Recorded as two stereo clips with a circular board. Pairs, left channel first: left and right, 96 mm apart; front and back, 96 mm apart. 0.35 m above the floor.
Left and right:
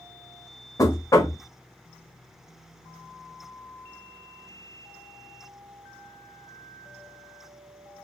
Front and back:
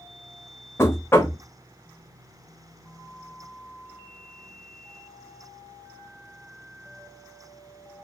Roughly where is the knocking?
Ahead left.